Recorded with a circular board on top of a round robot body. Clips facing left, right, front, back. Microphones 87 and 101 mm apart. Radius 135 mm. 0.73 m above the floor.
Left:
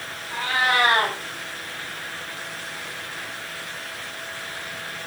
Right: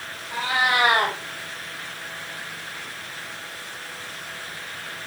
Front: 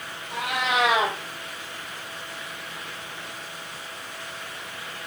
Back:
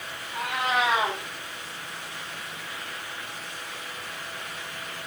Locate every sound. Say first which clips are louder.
0.3 s a cat meowing: even, front 1 dB; 15° right, 3 m